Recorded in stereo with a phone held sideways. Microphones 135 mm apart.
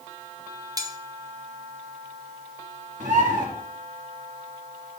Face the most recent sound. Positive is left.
turn(degrees=-75)  # may be behind; listen again after turning